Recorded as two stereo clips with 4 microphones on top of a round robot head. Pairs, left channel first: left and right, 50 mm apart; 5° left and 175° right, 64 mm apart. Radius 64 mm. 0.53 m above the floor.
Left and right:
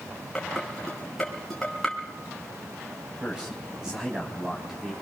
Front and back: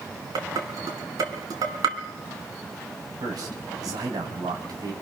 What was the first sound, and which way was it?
Dishes clattering, 175° left.